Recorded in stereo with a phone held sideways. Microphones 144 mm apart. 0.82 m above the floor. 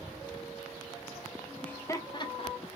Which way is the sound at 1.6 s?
10° left (ahead or behind).